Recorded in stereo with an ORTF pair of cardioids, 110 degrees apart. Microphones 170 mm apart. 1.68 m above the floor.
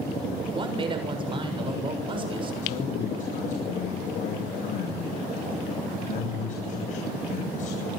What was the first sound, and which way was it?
A man speaking, 30° right.